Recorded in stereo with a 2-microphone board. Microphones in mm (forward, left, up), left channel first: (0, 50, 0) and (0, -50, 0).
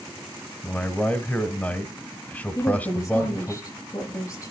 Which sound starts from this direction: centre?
A man speaking, at 0.6 s.